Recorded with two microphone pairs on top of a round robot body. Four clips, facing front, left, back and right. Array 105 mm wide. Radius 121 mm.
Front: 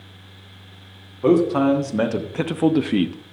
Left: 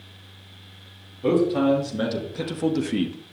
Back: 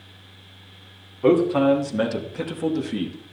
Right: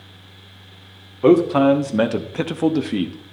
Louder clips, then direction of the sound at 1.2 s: Right 6 dB, front 1 dB; 95° right.